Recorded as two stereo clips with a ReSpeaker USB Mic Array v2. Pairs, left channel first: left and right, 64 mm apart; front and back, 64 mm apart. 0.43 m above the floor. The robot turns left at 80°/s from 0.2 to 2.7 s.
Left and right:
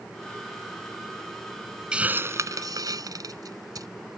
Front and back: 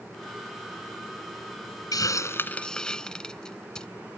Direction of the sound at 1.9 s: 15° right.